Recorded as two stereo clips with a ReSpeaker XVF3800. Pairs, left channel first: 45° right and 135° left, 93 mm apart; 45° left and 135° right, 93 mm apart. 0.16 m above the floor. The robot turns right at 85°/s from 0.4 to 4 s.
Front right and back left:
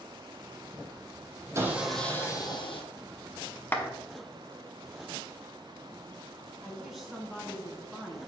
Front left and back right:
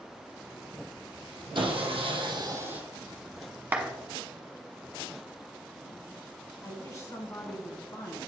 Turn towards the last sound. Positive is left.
turn(degrees=50)